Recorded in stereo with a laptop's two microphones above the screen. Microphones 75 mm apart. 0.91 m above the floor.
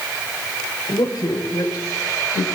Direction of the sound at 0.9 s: 60° left (ahead or behind).